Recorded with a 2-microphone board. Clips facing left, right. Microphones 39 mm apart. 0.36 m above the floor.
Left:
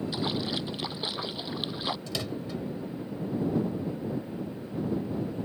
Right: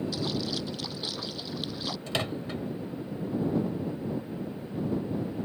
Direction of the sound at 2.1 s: 40° right (ahead or behind).